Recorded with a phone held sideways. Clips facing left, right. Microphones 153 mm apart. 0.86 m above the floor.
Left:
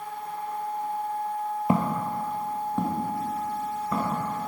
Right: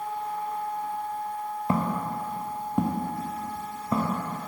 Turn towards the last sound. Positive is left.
turn(degrees=-30)  # may be behind; listen again after turning